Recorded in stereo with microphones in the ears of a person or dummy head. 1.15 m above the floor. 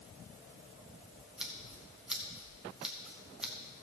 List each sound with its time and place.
1.4 s scissors: centre (ahead or behind), 1.0 m